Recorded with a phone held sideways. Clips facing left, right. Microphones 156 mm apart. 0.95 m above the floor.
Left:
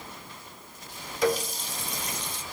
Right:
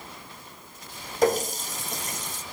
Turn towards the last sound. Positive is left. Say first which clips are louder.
# right 3 dB
turn(degrees=-45)  # may be behind; listen again after turning